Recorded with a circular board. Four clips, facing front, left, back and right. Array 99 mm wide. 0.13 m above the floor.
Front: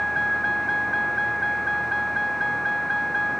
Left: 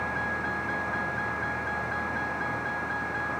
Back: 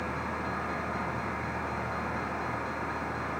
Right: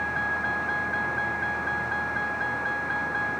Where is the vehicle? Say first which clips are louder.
Right 2 dB, front 8 dB; 10° right.